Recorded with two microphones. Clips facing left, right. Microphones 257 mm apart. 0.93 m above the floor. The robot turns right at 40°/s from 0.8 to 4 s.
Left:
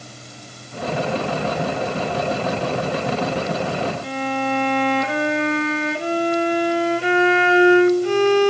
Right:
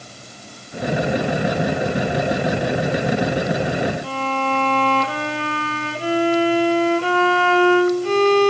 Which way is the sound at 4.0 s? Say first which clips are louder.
Left 1 dB; 20° left (ahead or behind).